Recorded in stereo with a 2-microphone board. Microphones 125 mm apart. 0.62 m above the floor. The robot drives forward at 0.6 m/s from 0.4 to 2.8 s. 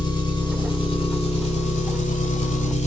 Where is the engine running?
40° left (ahead or behind), 1.5 m; by 2.9 s 70° left (ahead or behind), 1.0 m.